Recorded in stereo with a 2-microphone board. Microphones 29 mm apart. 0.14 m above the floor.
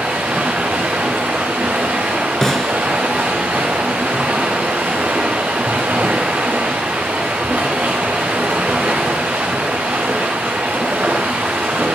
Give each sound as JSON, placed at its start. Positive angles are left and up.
{"t": 0.0, "sound": "running water", "side_deg": -85, "distance_m": 3.0}
{"t": 2.4, "sound": "a snare drum", "side_deg": 15, "distance_m": 0.8}